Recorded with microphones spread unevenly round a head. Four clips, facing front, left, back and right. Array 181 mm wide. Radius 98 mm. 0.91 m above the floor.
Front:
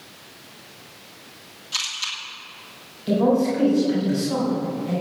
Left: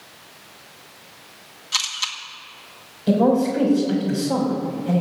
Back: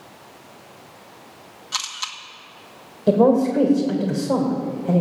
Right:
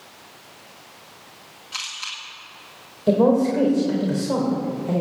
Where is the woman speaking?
160° right, 3.5 m.